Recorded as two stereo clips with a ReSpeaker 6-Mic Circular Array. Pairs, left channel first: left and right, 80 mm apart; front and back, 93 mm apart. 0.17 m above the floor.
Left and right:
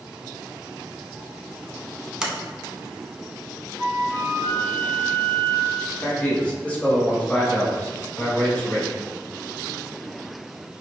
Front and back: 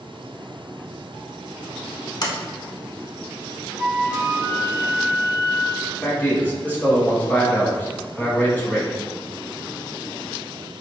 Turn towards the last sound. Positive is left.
turn(degrees=45)